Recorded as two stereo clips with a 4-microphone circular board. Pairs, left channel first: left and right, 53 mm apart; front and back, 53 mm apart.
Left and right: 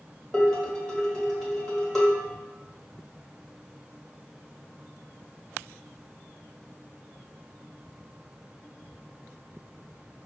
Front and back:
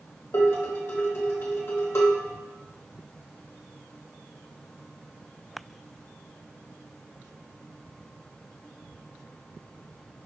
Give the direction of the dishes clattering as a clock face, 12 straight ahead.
12 o'clock.